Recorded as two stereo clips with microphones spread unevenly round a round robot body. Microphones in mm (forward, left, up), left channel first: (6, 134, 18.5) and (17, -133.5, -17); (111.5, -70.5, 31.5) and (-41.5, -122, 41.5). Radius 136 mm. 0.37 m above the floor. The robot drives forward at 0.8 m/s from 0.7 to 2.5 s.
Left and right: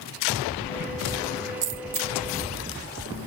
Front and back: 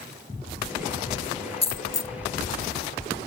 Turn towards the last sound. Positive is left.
turn(degrees=-95)